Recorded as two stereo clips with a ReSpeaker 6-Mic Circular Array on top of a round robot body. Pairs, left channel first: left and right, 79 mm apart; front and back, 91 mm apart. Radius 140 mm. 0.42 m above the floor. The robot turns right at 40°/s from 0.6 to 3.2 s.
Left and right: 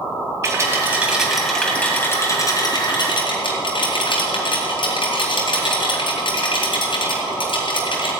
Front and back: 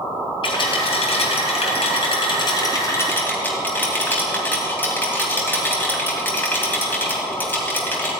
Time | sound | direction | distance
0.4 | a rattle | 30° right | 2.5 m